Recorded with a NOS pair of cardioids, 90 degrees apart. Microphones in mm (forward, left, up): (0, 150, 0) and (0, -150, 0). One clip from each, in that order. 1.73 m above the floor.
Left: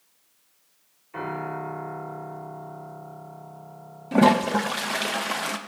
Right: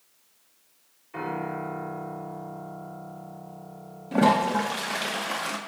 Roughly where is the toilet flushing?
Ahead left.